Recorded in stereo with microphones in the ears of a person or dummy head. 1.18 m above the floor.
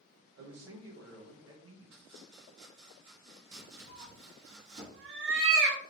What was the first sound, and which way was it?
A man speaking, 80° right.